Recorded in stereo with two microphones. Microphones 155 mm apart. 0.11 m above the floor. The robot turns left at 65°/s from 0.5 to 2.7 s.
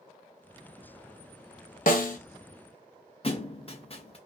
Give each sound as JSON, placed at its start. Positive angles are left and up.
{"t": 1.9, "sound": "a snare drum", "side_deg": 70, "distance_m": 0.6}
{"t": 3.2, "sound": "a thud", "side_deg": 40, "distance_m": 0.6}